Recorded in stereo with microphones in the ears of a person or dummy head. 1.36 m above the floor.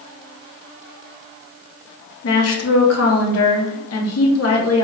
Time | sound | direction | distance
2.2 | a woman speaking | 75° left (ahead or behind) | 1.1 m